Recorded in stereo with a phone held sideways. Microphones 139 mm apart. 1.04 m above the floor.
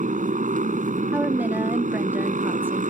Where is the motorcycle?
60° right (ahead or behind).